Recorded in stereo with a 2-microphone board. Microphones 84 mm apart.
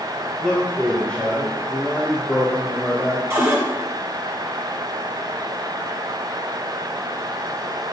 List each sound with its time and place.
0.4 s a man speaking: 10° left (ahead or behind), 3 m; by 3.2 s 35° left (ahead or behind), 3.5 m
3.3 s a cupboard door: 30° right (ahead or behind), 2 m